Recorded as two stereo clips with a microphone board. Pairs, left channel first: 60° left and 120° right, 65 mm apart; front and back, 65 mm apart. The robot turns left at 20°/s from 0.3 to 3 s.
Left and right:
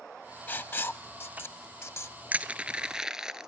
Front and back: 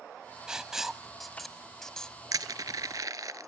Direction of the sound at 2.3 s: 170° left.